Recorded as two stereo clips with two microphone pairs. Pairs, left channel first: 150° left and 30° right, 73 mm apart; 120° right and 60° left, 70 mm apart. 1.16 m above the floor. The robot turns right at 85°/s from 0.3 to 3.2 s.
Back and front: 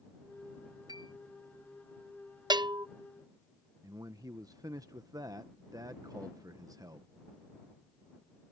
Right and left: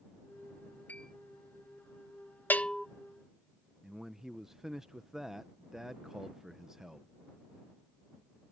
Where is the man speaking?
20° right.